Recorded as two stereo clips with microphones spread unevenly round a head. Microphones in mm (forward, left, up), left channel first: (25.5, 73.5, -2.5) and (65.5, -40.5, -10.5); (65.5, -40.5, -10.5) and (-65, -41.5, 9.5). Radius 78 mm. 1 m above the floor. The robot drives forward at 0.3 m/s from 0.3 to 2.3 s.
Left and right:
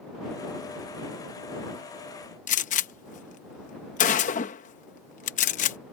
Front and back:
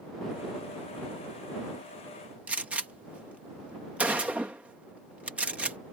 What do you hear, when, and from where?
2.5 s a gunshot: 95° left